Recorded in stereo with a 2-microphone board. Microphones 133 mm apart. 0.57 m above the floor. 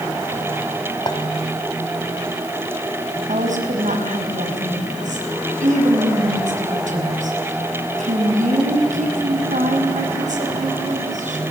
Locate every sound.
1.1 s a clink: 35° left (ahead or behind), 2.5 m
3.3 s a woman speaking: 70° right (ahead or behind), 5 m